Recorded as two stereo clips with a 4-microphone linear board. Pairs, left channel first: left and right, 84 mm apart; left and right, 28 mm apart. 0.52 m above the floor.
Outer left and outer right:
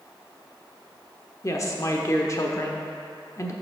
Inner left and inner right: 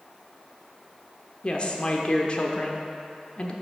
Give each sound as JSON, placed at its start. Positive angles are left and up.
{"t": 1.4, "sound": "a woman speaking", "side_deg": 35, "distance_m": 1.0}